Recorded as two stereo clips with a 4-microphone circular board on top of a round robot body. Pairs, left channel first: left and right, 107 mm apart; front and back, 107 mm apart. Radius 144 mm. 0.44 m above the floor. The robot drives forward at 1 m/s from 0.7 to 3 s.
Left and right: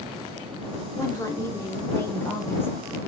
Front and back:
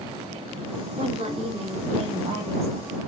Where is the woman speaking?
150° left, 4 m; by 2.7 s 160° left, 5.5 m.